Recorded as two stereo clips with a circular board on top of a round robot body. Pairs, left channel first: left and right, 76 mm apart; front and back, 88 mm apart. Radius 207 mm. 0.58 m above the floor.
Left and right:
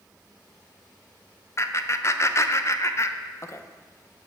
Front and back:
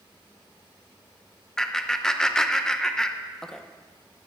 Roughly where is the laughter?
Left.